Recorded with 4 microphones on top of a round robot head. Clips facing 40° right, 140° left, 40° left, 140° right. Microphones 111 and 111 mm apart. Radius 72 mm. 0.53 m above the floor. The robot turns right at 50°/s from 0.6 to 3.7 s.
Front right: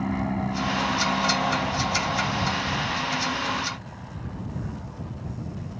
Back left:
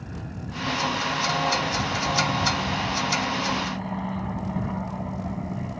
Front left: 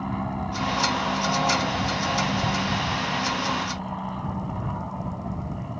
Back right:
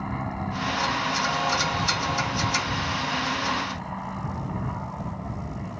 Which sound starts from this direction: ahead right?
An aircraft, at 0.0 s.